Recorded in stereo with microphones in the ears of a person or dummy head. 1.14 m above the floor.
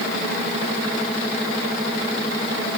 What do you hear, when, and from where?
Only background noise.